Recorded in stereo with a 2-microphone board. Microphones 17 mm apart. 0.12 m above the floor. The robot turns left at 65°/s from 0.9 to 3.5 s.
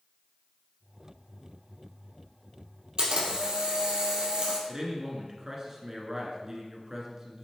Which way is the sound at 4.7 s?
30° right (ahead or behind).